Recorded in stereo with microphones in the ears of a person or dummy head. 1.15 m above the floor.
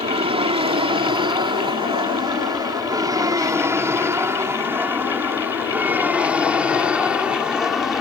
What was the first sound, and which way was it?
An aircraft, 30° right (ahead or behind).